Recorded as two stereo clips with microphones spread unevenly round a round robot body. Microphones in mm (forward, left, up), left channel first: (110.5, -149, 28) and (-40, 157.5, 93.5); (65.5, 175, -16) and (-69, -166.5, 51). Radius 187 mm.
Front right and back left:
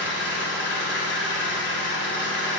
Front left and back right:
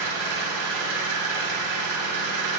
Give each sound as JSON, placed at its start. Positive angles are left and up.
{"t": 0.0, "sound": "an engine running", "azimuth_deg": -115, "distance_m": 2.0}